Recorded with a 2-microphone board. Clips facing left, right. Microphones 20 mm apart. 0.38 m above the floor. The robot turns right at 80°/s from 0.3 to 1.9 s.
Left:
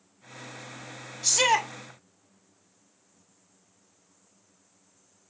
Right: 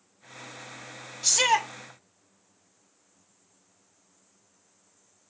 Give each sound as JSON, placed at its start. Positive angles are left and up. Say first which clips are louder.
{"t": 1.2, "sound": "a shout", "louder": "even", "azimuth_deg": -15, "distance_m": 0.9}